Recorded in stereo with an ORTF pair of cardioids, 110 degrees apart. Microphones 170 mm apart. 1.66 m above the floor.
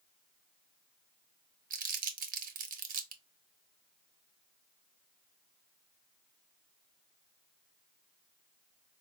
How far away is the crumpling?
About 0.8 m.